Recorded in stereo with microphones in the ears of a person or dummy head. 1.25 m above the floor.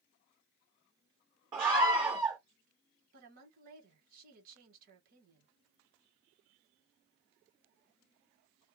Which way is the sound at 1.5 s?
15° right (ahead or behind).